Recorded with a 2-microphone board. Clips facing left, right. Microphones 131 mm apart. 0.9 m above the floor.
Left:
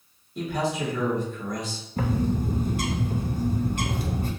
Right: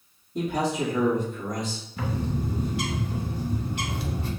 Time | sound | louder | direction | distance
0.3 | a man speaking | right 1 dB | 70° right (ahead or behind) | 1.6 m
2.0 | a bird | left 5 dB | 50° left (ahead or behind) | 0.6 m